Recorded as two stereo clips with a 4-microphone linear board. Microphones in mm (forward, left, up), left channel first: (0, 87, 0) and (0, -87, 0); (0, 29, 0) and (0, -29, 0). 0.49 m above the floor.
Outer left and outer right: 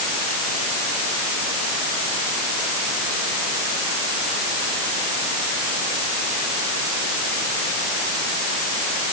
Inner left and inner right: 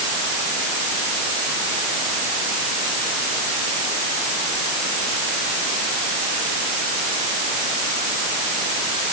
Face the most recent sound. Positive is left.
No sound to turn to.